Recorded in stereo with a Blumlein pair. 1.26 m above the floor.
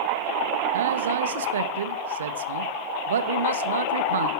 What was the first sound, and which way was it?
A man speaking, 65° right.